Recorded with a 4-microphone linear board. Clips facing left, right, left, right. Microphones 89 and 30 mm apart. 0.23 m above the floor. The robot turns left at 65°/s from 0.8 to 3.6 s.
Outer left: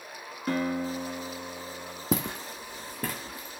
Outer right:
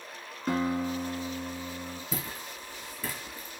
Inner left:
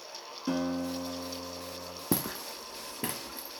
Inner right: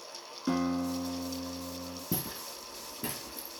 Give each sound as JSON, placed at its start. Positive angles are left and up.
{"t": 0.5, "sound": "a guitar", "azimuth_deg": -10, "distance_m": 1.7}
{"t": 2.1, "sound": "footsteps", "side_deg": 75, "distance_m": 0.6}